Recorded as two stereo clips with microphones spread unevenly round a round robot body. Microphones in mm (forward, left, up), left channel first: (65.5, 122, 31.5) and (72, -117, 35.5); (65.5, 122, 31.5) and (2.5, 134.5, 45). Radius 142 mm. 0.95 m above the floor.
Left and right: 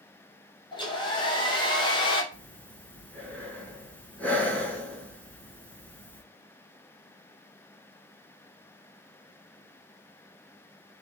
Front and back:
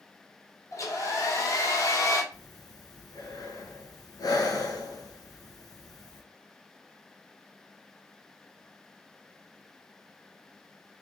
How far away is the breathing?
About 2.5 m.